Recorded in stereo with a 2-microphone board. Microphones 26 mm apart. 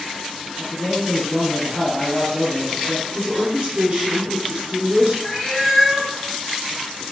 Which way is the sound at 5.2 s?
10° left (ahead or behind).